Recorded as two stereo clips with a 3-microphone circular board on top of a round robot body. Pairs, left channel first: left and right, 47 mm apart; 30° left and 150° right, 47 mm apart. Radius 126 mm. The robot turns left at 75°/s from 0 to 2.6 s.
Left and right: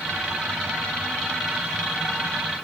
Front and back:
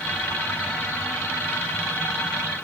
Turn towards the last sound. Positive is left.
No sound to turn to.